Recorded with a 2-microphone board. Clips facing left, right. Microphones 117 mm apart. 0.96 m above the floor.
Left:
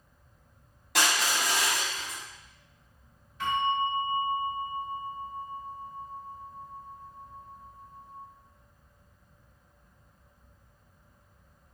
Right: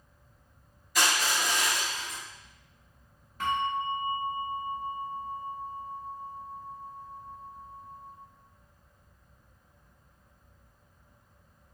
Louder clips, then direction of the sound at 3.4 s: Left 2 dB; 45° right (ahead or behind).